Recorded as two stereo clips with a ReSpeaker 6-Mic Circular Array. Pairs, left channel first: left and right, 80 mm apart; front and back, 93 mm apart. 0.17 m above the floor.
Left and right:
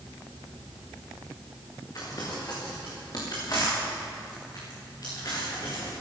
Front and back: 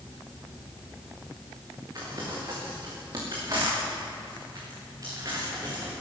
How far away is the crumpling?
About 5.5 m.